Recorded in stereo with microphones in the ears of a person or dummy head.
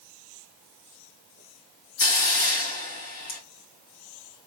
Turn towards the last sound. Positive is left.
turn(degrees=55)  # may be behind; listen again after turning